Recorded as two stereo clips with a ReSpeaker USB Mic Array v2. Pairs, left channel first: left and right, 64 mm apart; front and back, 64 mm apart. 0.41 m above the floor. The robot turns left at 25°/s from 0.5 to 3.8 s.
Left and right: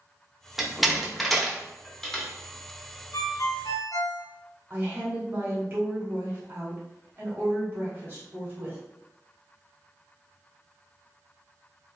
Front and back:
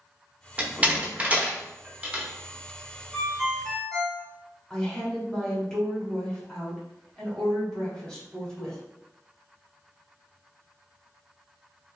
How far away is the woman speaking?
About 1.4 m.